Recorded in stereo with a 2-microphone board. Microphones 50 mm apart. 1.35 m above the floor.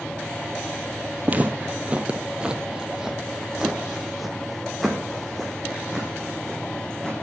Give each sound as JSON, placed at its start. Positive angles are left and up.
{"t": 1.2, "sound": "footsteps", "side_deg": -35, "distance_m": 1.5}